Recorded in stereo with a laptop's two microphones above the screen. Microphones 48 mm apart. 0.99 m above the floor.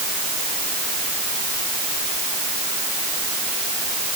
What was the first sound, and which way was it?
Only background noise.